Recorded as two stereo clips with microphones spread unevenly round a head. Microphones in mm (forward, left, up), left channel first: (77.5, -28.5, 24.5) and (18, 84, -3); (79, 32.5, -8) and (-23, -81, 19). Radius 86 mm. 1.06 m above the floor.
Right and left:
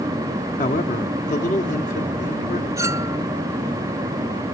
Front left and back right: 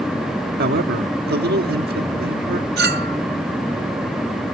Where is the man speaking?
110° right.